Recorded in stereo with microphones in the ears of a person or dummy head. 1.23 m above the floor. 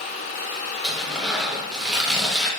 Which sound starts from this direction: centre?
Tearing paper, at 0.8 s.